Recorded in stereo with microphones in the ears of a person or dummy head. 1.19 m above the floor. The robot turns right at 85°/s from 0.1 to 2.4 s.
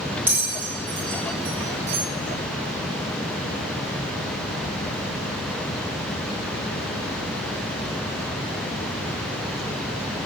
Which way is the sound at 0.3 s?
10° right (ahead or behind).